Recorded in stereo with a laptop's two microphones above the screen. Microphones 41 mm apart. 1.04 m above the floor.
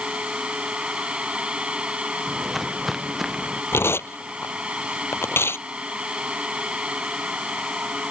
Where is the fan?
25° right (ahead or behind).